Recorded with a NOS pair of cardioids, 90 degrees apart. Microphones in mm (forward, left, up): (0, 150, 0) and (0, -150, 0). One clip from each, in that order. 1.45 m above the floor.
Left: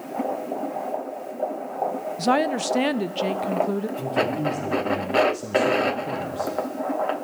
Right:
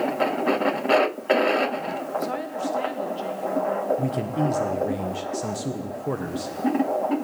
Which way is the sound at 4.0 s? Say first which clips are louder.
Left 2 dB; 30° right.